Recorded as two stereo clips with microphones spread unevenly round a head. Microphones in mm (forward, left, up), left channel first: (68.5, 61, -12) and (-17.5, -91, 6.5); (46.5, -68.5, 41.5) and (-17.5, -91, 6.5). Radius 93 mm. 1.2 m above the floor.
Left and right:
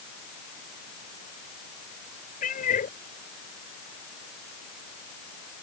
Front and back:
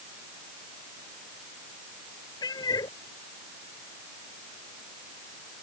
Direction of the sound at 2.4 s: 15° left.